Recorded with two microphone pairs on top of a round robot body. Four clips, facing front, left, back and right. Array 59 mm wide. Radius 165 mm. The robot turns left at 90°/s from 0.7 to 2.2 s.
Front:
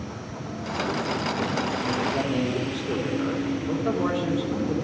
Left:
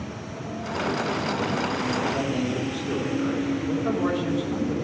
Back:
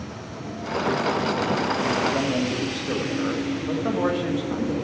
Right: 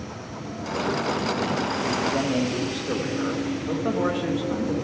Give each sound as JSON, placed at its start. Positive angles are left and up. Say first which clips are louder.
{"t": 2.1, "sound": "a man speaking", "louder": "right 2 dB, back 1 dB", "azimuth_deg": -135, "distance_m": 1.9}